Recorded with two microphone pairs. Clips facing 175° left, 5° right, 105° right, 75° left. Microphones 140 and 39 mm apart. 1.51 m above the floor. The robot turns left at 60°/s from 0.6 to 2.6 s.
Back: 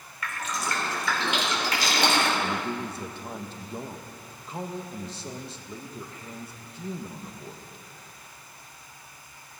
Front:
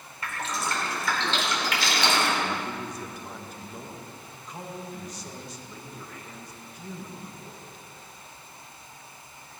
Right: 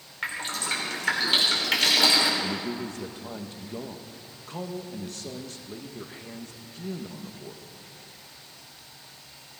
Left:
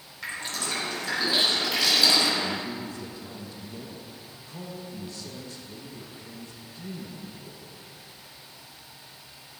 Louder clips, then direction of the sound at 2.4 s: Back 1 dB, even; 115° right.